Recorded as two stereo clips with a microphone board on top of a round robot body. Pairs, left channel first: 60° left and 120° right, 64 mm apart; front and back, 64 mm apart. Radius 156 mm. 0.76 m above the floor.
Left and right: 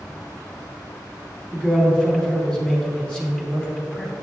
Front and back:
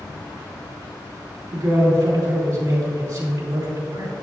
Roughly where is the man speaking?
Behind left.